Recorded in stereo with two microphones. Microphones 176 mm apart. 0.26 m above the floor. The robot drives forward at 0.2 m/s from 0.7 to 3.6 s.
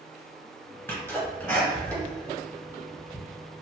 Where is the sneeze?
15° left (ahead or behind), 1.9 m; by 3.2 s 10° left (ahead or behind), 2 m.